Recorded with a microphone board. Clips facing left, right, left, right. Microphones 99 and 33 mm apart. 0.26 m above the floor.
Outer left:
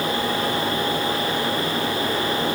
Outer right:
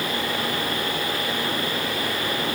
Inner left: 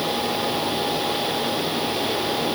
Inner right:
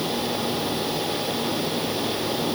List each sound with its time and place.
Only background noise.